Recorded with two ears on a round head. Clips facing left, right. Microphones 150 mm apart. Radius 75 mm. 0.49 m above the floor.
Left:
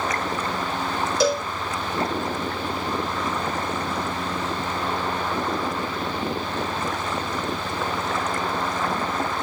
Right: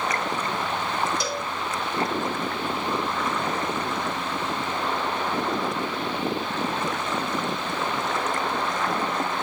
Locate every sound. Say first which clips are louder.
1.2 s a cowbell: left 8 dB; 60° left (ahead or behind), 1.7 m